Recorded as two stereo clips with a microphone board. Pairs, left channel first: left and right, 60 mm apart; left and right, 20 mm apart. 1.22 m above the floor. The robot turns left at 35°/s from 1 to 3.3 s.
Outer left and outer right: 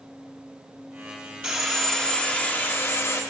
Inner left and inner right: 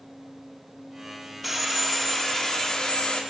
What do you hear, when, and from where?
1.4 s sawing: 170° right, 3.5 m; by 3.2 s 125° left, 3.5 m